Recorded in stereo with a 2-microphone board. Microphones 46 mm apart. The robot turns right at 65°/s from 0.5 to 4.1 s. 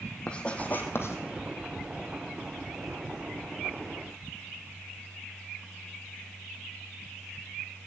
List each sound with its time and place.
0.3 s writing: 20° left (ahead or behind), 1.8 m; by 1.2 s 65° left (ahead or behind), 1.8 m